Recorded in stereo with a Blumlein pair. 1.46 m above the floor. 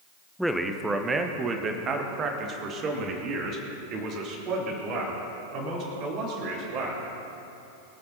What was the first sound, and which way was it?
A man speaking, straight ahead.